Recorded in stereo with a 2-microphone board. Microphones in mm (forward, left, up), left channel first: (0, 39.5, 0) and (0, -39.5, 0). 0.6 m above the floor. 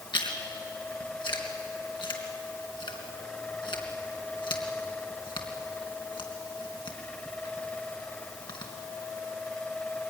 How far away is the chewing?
About 3 m.